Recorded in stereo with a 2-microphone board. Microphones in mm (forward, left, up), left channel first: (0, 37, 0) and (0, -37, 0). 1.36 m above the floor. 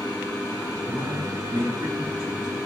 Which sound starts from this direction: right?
A man speaking, at 0.9 s.